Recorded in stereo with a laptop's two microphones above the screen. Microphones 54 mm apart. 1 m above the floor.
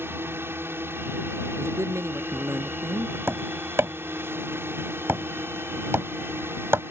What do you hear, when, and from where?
0.0 s a drone: 45° right (ahead or behind)
1.6 s a man speaking: 60° right (ahead or behind)
3.3 s tapping: 50° right (ahead or behind)